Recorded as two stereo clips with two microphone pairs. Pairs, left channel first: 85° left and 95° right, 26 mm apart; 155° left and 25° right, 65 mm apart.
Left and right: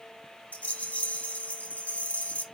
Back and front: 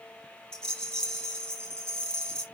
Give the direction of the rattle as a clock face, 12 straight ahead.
9 o'clock.